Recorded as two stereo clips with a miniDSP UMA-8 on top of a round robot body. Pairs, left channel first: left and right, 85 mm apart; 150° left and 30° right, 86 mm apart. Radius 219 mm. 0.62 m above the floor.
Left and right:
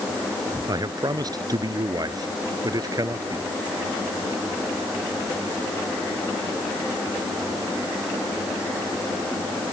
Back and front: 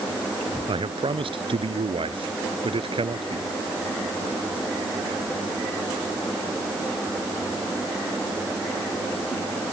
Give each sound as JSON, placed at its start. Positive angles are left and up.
{"t": 0.7, "sound": "a man speaking", "azimuth_deg": -45}